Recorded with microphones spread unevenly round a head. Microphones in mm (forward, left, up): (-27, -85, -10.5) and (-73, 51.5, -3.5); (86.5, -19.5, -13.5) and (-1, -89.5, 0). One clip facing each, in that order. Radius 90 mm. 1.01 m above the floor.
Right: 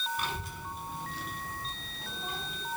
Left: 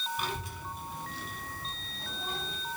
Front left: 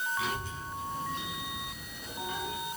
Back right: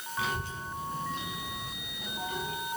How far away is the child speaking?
About 3 m.